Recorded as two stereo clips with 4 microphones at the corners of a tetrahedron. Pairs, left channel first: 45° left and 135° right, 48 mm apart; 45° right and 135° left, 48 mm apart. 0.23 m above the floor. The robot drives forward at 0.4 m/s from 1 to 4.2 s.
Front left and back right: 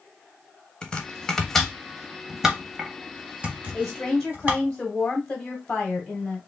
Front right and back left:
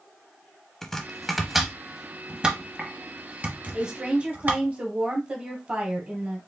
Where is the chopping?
20° left, 0.8 m; by 4.6 s 175° left, 1.3 m.